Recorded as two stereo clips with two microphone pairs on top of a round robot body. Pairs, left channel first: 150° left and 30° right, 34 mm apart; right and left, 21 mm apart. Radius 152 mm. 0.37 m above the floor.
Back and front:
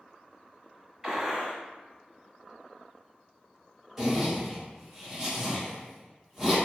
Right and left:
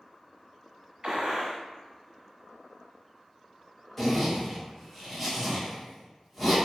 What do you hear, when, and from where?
1.0 s a gunshot: 50° left, 1.4 m
4.0 s a zipper: 30° left, 1.4 m